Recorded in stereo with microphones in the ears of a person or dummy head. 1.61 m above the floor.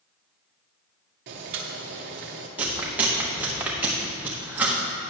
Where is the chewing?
10° right (ahead or behind), 1.0 m.